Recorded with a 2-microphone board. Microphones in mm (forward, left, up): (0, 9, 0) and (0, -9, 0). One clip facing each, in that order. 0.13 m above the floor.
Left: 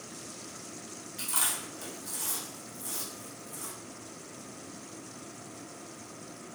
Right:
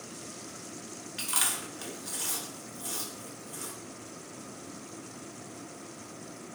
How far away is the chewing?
About 1.0 m.